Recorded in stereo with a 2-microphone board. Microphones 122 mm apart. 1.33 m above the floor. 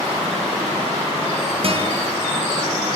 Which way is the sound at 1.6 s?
55° right (ahead or behind).